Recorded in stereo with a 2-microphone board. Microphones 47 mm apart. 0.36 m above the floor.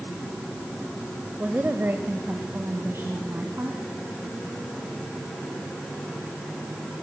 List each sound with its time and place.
1.4 s a woman speaking: 40° right (ahead or behind), 1.0 m; by 3.8 s 55° right (ahead or behind), 3 m